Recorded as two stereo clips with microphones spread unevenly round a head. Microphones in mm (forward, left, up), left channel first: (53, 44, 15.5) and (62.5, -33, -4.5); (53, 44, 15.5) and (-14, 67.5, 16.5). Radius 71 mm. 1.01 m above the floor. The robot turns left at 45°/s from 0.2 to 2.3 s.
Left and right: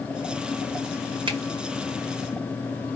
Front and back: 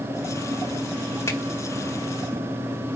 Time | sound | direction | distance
1.3 | a finger snap | 85° right | 2 m